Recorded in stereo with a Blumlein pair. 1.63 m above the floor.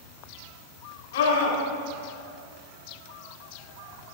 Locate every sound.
1.1 s a scream: 60° left, 5 m